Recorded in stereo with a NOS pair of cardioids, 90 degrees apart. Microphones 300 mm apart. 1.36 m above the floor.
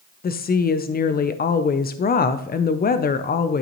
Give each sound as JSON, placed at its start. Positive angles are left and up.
{"t": 0.2, "sound": "a woman speaking", "azimuth_deg": 30, "distance_m": 0.6}